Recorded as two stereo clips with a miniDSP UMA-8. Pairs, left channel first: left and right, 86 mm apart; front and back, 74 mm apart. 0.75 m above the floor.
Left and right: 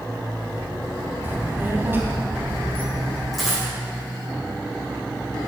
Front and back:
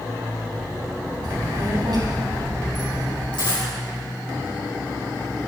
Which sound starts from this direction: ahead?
A dropped coin, at 3.3 s.